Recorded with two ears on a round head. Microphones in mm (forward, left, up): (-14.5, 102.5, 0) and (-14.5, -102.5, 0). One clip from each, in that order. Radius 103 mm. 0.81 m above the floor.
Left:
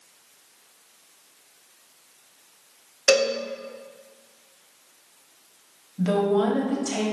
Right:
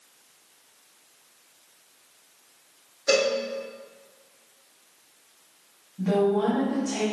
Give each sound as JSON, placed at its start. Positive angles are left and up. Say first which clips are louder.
{"t": 3.1, "sound": "a cowbell", "louder": "left 3 dB", "side_deg": 50, "distance_m": 1.1}
{"t": 6.0, "sound": "a woman speaking", "louder": "left 1 dB", "side_deg": 75, "distance_m": 1.3}